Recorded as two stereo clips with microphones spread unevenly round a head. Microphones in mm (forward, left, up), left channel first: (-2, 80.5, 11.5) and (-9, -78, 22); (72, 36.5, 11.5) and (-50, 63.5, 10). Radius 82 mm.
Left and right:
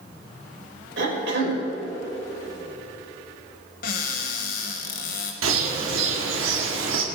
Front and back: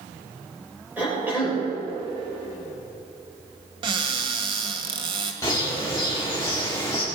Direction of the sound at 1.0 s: 110° right.